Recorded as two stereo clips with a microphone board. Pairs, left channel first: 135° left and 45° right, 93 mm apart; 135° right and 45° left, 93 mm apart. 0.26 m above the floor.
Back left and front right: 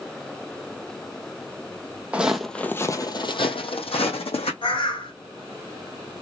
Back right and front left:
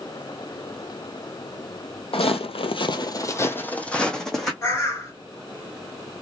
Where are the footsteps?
120° right, 0.6 m; by 4.5 s 135° left, 1.1 m.